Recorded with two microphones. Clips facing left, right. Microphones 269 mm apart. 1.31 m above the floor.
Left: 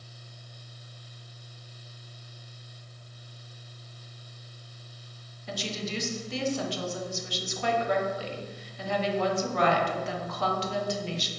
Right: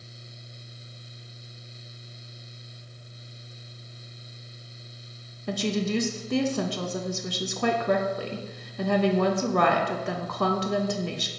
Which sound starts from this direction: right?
A woman speaking, at 5.5 s.